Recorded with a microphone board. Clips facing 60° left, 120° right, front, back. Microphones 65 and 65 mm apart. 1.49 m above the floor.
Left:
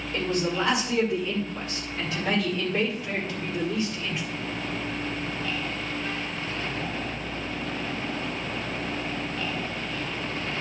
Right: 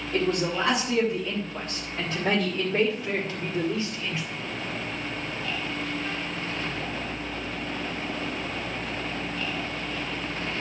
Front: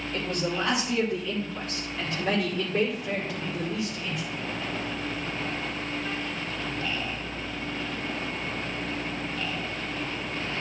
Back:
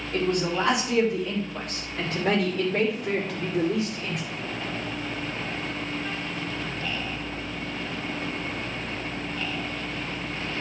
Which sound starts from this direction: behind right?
A man speaking, at 0.1 s.